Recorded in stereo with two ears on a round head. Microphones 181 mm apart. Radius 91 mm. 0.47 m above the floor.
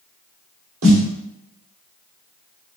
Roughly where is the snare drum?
Right.